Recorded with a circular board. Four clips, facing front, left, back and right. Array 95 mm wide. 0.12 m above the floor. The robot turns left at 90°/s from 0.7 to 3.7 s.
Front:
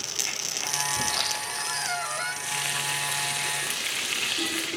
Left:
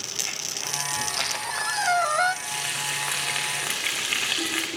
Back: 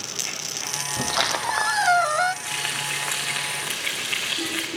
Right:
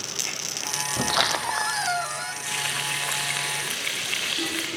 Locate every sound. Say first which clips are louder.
1.0 s a squeak: right 11 dB, back 6 dB; 110° right, 0.5 m; by 2.4 s 125° left, 0.5 m
2.5 s frying: right 1 dB, back 1 dB; 160° right, 7.5 m; by 4.7 s 85° left, 7.5 m